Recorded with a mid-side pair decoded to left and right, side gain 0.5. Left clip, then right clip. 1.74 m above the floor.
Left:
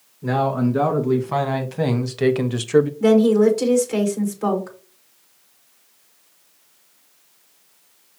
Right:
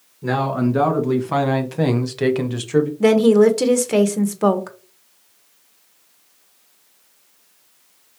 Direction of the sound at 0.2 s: 30° right.